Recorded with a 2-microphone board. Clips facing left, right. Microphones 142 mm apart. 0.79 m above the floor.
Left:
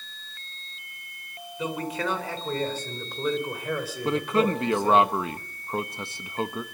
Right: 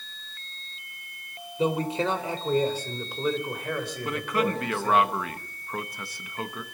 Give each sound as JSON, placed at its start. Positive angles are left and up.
{"t": 1.6, "sound": "a man speaking", "side_deg": -30, "distance_m": 3.5}
{"t": 4.0, "sound": "a man speaking", "side_deg": 25, "distance_m": 1.0}